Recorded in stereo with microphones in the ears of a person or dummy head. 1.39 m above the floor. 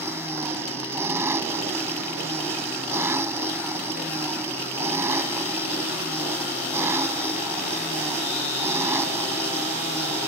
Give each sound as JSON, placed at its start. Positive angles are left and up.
{"t": 0.0, "sound": "an engine running", "side_deg": -10}